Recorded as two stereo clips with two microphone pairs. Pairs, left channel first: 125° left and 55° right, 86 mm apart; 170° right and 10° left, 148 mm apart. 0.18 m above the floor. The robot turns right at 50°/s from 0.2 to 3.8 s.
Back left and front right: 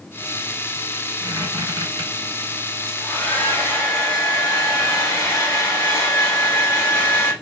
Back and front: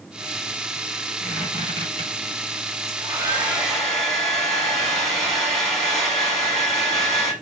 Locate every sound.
1.2 s a squeak: 80° right, 1.4 m; by 2.1 s 35° right, 1.4 m
2.9 s a hair dryer: 55° left, 0.8 m; by 7.3 s 100° left, 0.8 m